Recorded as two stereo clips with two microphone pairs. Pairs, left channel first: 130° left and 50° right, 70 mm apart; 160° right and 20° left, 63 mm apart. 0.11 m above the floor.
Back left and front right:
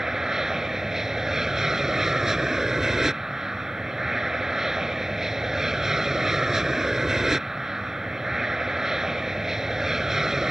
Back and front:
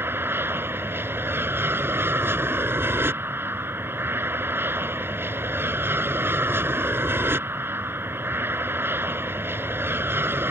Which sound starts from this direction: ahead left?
An aircraft, at 0.0 s.